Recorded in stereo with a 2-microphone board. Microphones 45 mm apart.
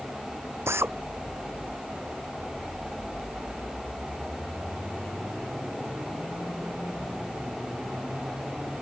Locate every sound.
0.7 s a drill: 70° right (ahead or behind)